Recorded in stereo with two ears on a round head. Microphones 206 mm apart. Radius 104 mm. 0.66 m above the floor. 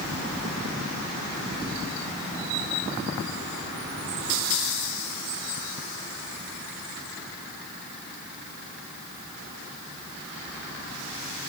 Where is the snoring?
I don't hear snoring.